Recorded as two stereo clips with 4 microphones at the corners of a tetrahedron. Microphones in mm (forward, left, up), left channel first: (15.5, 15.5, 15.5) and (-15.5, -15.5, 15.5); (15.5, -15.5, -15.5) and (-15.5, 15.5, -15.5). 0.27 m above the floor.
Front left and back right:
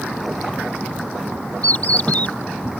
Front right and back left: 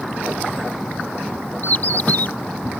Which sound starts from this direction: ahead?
A bird, at 1.6 s.